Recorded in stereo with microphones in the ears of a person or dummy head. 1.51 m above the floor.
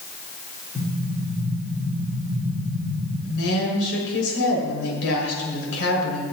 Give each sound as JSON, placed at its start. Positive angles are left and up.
{"t": 0.8, "sound": "an explosion", "side_deg": 40, "distance_m": 3.5}
{"t": 3.2, "sound": "a woman speaking", "side_deg": 70, "distance_m": 5.0}